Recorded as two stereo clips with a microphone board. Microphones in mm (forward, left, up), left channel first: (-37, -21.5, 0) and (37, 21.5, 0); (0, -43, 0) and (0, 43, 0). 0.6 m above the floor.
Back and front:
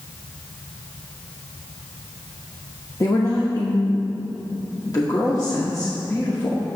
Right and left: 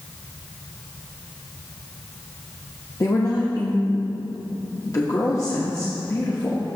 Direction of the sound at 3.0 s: 120° right.